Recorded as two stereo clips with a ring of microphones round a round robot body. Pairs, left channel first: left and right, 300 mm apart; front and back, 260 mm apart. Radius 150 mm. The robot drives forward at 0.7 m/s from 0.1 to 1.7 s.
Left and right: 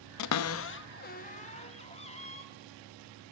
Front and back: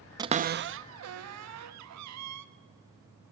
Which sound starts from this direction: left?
A cupboard door, at 0.2 s.